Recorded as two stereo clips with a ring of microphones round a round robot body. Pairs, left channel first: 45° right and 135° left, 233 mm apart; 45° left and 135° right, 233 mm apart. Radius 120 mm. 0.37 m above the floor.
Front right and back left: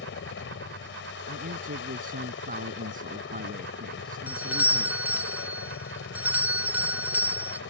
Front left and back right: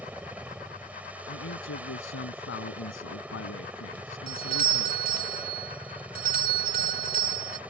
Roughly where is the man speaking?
Left.